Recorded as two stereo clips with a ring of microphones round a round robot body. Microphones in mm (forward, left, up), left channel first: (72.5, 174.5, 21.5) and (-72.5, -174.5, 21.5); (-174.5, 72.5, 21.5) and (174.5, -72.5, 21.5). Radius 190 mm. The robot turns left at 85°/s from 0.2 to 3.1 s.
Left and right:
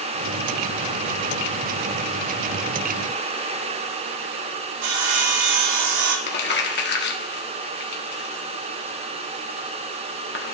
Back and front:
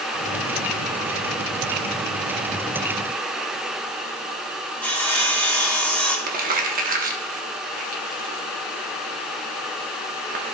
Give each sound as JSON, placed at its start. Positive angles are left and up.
{"t": 4.8, "sound": "sawing", "azimuth_deg": -115, "distance_m": 1.2}
{"t": 6.3, "sound": "crumpling", "azimuth_deg": 30, "distance_m": 1.0}